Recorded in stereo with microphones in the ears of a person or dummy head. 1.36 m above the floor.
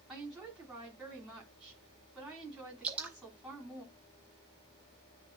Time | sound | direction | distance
0.1 | a woman speaking | 5° right (ahead or behind) | 3 m
2.8 | dripping | 5° right (ahead or behind) | 0.8 m